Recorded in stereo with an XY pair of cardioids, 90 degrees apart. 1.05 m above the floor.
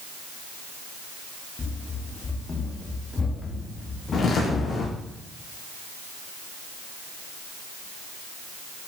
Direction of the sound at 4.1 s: 60° left.